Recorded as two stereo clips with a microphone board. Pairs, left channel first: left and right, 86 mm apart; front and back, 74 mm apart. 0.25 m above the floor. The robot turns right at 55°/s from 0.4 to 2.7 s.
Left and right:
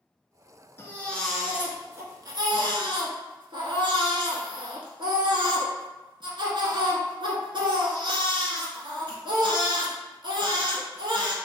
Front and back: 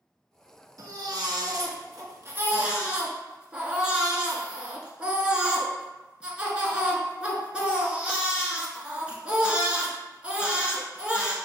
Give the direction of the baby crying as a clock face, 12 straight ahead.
7 o'clock.